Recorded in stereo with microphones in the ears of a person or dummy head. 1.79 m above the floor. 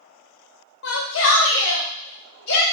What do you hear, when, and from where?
0.8 s a shout: 65° left (ahead or behind), 0.8 m; by 2.6 s 60° left (ahead or behind), 1.5 m